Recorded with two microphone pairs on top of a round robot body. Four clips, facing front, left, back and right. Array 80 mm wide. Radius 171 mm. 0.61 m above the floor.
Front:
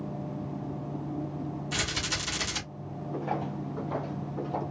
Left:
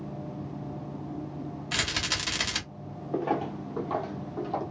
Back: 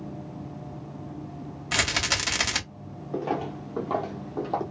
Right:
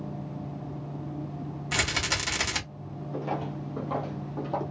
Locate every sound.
1.7 s a rattle: 165° right, 2.5 m
3.1 s footsteps: 125° left, 0.9 m; by 4.6 s 165° right, 1.6 m